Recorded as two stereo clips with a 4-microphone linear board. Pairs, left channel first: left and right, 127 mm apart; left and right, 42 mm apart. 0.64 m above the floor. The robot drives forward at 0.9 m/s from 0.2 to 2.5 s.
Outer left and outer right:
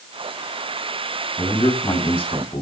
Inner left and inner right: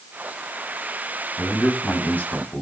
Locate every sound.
1.4 s a man speaking: 40° left (ahead or behind), 5.5 m; by 2.6 s 50° left (ahead or behind), 5 m